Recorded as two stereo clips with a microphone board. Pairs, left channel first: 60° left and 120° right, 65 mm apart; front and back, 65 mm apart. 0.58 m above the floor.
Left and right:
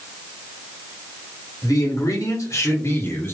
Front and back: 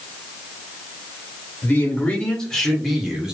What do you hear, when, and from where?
1.6 s a man speaking: 60° left, 2.5 m; by 3.4 s 105° left, 1.7 m